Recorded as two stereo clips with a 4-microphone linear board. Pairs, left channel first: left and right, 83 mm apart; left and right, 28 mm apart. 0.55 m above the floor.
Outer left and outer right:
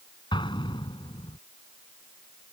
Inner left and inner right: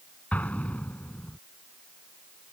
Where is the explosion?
75° left (ahead or behind).